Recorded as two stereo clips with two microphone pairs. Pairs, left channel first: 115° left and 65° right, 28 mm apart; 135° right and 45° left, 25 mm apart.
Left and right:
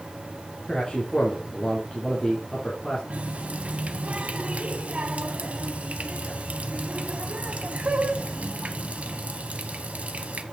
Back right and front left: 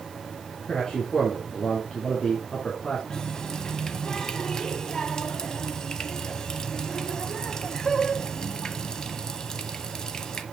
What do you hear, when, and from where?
0.7 s a man speaking: 170° left, 3 m
3.1 s a running tap: 90° right, 1.0 m